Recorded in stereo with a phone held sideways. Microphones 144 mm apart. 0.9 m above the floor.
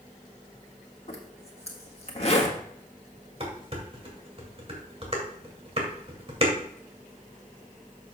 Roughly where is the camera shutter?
I don't hear a camera shutter.